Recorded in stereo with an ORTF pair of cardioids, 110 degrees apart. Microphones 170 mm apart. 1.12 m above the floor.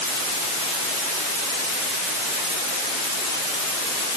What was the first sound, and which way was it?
Only background noise.